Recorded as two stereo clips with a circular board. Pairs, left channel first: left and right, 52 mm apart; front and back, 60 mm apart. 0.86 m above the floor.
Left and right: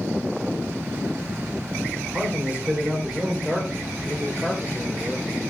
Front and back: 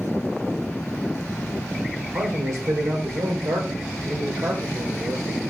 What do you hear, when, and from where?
2.1 s a man speaking: 150° right, 3 m; by 5.5 s 170° left, 3 m